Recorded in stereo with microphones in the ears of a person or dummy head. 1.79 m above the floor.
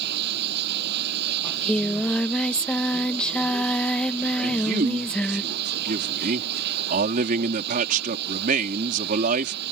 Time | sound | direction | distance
0.0 | running water | 60° right (ahead or behind) | ?
1.4 | singing | 5° left (ahead or behind) | ?
4.4 | a man speaking | 50° right (ahead or behind) | ?